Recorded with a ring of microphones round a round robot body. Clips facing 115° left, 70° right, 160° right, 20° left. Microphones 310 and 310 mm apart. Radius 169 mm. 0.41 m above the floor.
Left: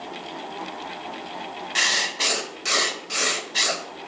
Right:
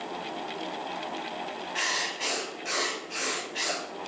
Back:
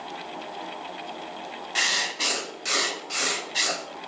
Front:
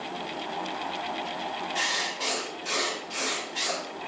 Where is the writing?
150° left, 0.5 m.